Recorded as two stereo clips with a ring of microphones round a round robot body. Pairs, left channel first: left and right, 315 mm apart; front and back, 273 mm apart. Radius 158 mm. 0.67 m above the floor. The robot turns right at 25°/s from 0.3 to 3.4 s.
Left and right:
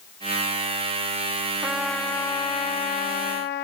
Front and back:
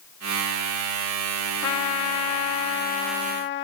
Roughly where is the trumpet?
Ahead.